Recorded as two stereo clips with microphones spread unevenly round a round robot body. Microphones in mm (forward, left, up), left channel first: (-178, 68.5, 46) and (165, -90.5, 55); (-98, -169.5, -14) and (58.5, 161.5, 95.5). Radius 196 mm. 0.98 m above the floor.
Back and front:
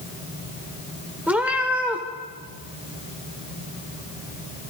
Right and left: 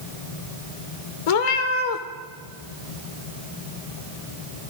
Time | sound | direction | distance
1.3 | a cat meowing | 110° right | 1.1 m